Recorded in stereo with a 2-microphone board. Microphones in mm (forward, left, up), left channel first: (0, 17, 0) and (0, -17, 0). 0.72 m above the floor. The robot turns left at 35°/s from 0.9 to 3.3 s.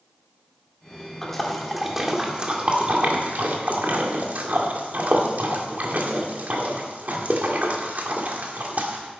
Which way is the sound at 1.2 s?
10° left (ahead or behind).